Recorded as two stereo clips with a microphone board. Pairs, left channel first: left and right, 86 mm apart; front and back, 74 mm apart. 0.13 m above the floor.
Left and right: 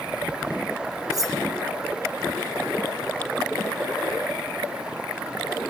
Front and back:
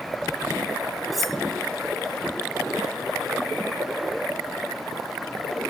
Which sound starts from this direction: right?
Cutlery clinking, at 1.1 s.